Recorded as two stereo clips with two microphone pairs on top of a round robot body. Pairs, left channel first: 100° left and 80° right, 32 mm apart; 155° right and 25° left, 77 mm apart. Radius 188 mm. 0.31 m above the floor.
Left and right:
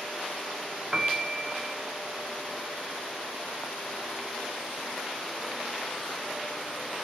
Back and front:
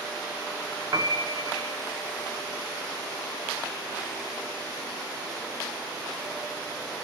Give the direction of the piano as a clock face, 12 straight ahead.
12 o'clock.